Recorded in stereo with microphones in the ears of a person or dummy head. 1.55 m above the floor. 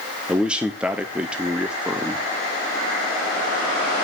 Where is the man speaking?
5° right (ahead or behind), 0.8 m.